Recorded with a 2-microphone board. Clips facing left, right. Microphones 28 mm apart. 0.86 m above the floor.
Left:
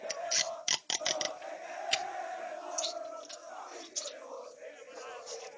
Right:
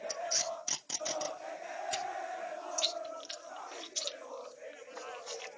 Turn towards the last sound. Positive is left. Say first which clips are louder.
# right 5 dB
turn(degrees=-45)  # may be behind; listen again after turning